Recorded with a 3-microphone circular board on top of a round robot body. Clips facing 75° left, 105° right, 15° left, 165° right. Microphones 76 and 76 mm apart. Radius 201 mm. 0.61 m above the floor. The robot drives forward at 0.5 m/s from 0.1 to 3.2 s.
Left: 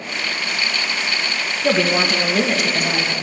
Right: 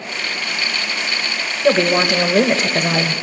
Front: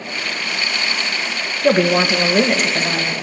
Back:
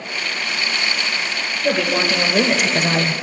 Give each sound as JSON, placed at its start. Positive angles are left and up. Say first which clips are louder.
{"t": 1.6, "sound": "a woman speaking", "louder": "right 3 dB, front 5 dB", "azimuth_deg": -25, "distance_m": 0.8}